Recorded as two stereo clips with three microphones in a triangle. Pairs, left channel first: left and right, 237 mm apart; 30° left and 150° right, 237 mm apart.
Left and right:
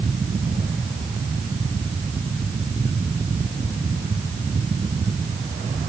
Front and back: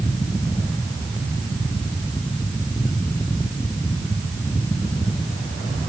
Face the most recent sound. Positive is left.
No sound to turn to.